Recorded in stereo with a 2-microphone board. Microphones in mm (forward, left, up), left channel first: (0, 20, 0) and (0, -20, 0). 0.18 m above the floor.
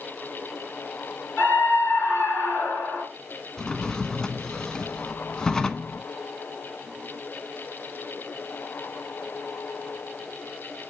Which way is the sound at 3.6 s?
15° left (ahead or behind).